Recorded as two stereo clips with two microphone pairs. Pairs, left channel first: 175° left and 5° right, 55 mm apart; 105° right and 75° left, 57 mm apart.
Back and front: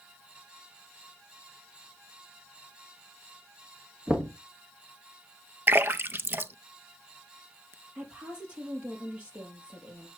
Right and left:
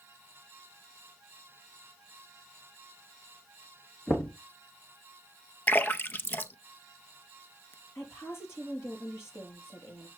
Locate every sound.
4.1 s knocking: 70° right, 2 m
5.7 s a splash: 50° right, 0.5 m
8.0 s a woman speaking: 70° right, 4.5 m